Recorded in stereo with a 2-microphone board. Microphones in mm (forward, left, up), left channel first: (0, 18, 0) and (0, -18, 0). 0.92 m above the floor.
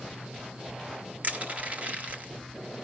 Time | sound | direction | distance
1.2 | crushing | 50° right (ahead or behind) | 1.2 m